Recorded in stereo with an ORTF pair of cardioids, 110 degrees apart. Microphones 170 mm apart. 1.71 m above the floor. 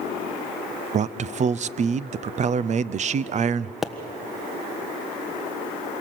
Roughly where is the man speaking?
Ahead right.